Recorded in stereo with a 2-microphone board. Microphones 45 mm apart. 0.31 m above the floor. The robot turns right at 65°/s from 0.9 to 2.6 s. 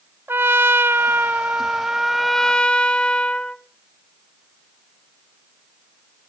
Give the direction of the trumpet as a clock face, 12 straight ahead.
3 o'clock.